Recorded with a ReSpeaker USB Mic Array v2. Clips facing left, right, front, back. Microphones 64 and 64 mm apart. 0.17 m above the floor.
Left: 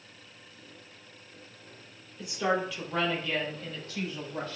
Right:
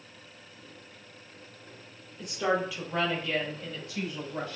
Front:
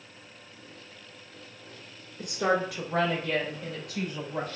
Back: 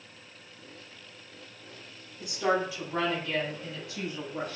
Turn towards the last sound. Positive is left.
turn(degrees=-15)